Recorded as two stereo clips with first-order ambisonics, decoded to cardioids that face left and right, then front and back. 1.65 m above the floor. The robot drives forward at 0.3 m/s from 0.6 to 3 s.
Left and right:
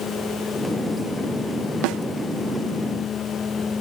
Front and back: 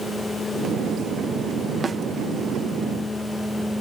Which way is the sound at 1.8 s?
110° right.